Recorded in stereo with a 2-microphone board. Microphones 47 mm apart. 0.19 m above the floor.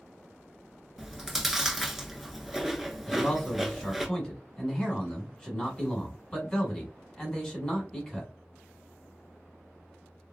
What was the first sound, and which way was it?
Chewing, 10° right (ahead or behind).